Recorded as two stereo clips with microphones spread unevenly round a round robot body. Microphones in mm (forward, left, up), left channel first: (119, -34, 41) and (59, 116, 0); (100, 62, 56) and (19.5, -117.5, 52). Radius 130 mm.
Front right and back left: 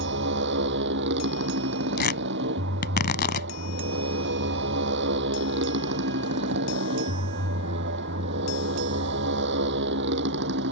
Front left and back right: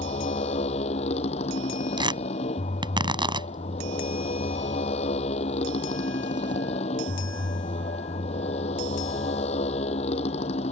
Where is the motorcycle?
130° left.